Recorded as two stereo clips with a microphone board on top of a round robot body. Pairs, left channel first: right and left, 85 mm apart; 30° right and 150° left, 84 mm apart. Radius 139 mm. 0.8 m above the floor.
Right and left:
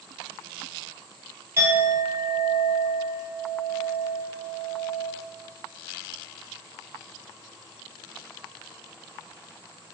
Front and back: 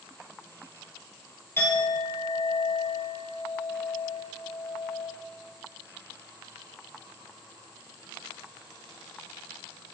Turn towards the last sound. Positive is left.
turn(degrees=30)